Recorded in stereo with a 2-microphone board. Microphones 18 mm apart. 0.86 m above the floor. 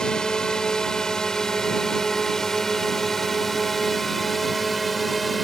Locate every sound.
0.0 s a drone: 40° left (ahead or behind); by 5.4 s centre (ahead or behind)